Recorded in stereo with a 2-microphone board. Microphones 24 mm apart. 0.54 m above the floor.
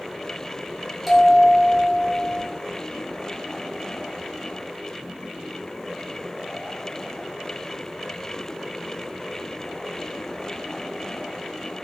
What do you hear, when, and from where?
1.1 s a bell: centre (ahead or behind), 1.2 m